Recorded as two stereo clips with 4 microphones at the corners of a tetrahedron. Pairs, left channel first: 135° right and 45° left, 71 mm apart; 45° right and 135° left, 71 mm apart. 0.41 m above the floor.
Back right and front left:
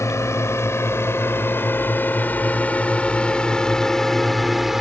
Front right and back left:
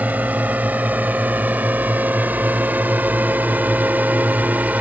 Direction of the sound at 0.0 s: 165° right.